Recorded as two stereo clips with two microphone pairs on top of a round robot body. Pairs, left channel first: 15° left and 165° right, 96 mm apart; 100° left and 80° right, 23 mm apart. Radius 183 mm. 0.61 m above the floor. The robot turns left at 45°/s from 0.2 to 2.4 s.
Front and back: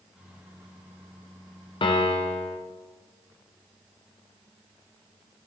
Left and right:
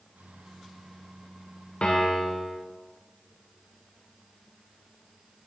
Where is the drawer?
No drawer in this recording.